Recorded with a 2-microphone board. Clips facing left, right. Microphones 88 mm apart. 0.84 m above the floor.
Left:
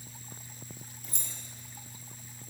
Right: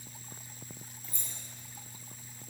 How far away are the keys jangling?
About 0.7 m.